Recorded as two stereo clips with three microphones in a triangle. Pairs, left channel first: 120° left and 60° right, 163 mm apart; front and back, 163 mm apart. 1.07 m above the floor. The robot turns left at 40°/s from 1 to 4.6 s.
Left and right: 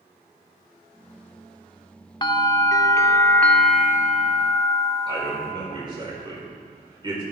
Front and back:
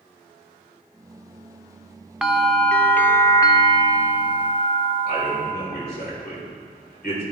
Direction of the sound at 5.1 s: Straight ahead.